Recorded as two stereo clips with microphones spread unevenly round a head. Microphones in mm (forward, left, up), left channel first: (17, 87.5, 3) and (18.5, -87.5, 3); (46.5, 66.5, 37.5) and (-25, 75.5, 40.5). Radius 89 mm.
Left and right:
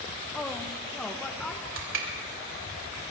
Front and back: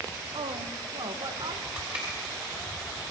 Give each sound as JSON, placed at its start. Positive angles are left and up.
{"t": 0.3, "sound": "a woman speaking", "azimuth_deg": 170, "distance_m": 1.0}
{"t": 1.8, "sound": "crushing", "azimuth_deg": -110, "distance_m": 3.0}